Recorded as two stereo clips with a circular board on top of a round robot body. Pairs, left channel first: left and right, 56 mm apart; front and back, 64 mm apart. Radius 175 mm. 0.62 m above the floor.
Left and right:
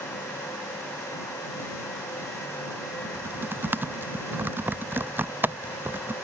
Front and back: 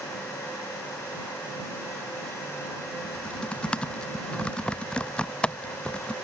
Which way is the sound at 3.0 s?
65° right.